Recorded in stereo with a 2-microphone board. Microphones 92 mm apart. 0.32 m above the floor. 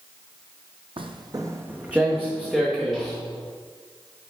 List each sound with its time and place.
1.0 s footsteps: 65° right (ahead or behind), 0.6 m; by 3.2 s 5° left (ahead or behind), 2.5 m